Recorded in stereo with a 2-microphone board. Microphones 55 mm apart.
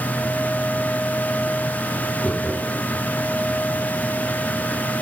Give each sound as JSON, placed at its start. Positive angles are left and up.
{"t": 2.2, "sound": "laughter", "side_deg": 0, "distance_m": 6.5}